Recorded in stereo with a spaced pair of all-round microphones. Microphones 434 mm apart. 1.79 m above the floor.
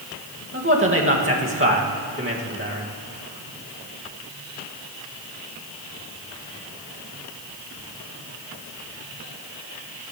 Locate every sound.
0.5 s a man speaking: 30° right (ahead or behind), 2.5 m